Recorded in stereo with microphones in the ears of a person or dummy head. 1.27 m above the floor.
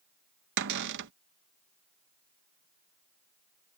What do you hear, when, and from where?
0.6 s a cupboard door: 60° right (ahead or behind)